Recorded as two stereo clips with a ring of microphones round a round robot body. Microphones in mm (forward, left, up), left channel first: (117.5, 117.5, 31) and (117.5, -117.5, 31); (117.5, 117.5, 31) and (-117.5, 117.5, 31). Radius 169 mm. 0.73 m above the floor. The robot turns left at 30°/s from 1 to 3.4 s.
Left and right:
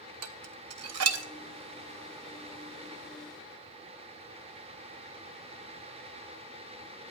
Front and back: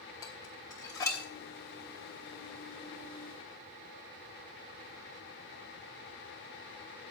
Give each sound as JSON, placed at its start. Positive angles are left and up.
{"t": 0.2, "sound": "dishes clattering", "azimuth_deg": -80, "distance_m": 0.8}